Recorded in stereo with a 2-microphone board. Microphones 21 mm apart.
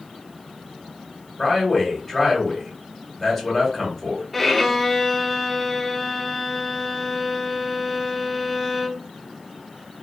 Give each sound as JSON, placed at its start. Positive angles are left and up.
{"t": 1.4, "sound": "a man speaking", "side_deg": 15, "distance_m": 2.5}
{"t": 4.3, "sound": "a violin", "side_deg": 5, "distance_m": 0.6}